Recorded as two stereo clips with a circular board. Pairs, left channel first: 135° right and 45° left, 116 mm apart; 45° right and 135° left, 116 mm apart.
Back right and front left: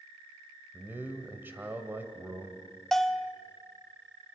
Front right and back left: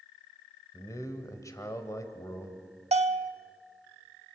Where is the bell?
135° left, 0.6 m.